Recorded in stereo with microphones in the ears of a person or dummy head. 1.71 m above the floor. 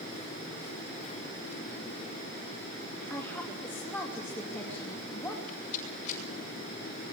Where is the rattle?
45° left (ahead or behind), 8.5 m.